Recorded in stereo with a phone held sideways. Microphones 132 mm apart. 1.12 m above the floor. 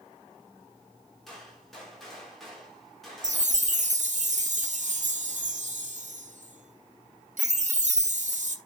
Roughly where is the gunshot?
Centre.